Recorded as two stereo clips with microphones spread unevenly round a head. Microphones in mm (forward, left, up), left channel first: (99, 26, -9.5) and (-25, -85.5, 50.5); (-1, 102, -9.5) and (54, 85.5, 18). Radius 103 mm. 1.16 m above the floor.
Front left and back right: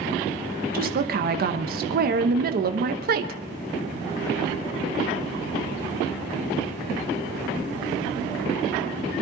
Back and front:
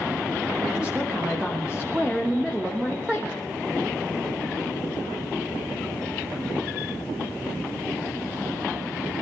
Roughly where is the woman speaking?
Right.